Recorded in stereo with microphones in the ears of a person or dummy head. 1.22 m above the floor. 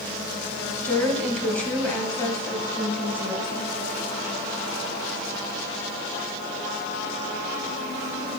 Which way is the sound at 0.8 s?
5° left (ahead or behind).